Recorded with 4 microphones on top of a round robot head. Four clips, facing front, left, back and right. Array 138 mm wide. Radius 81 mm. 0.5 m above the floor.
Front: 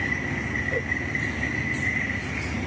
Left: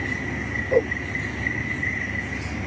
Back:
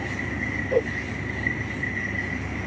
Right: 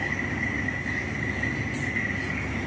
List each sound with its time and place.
0.7 s a whoosh: 120° left